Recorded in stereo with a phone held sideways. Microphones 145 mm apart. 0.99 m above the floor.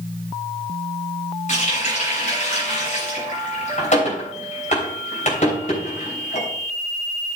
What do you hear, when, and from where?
1.5 s a running tap: 60° left (ahead or behind), 3 m